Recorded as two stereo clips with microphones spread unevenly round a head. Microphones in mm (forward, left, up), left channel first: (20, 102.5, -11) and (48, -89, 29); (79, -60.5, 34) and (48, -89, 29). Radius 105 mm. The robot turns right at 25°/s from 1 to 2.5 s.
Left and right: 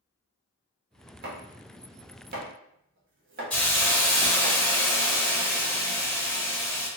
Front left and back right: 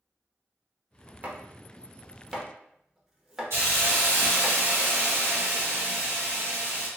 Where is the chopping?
85° right, 1.1 m; by 4.5 s 55° right, 1.1 m.